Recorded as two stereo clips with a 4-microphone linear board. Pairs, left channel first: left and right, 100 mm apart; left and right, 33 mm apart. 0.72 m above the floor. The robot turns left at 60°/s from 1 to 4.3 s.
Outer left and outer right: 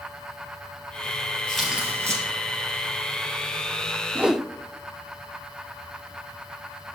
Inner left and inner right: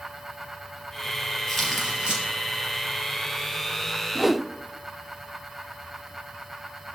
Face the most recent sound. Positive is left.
turn(degrees=-5)  # may be behind; listen again after turning